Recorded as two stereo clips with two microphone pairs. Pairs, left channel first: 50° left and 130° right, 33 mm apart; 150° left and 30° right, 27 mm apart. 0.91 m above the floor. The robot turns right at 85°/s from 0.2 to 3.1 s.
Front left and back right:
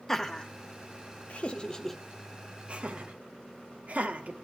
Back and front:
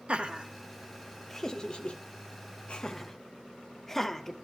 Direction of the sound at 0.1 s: 20° right.